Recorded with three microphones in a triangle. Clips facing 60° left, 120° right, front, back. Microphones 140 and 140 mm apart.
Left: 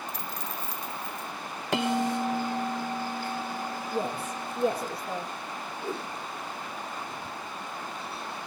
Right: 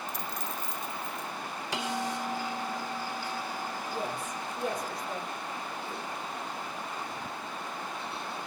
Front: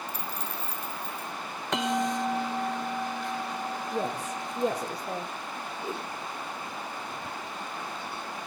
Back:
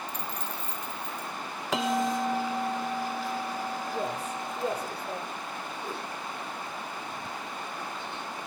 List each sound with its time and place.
0.1 s a dropped coin: 80° right, 0.9 m
1.7 s a bell: 95° left, 0.8 m
3.9 s a woman speaking: 5° left, 8 m
5.8 s a whoosh: 70° left, 3 m